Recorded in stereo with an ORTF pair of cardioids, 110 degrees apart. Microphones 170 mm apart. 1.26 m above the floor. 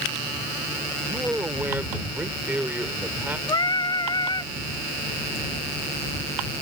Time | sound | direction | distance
1.1 | a man speaking | 10° right | ?
3.5 | singing | 25° left | ?